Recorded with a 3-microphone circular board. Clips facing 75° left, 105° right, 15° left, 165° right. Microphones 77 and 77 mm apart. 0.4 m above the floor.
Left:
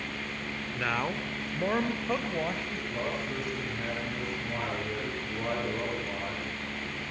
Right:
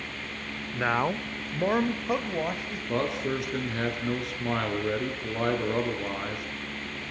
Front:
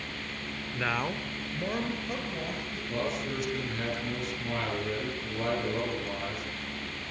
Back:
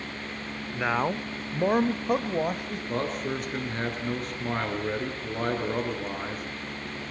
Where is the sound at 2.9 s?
120° right, 6.5 m.